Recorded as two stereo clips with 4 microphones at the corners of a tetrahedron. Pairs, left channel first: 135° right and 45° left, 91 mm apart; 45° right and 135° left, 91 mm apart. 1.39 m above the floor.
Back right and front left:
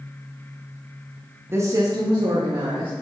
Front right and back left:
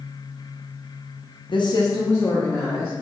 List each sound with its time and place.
1.5 s a woman speaking: 20° right, 0.8 m; by 2.9 s 40° left, 1.7 m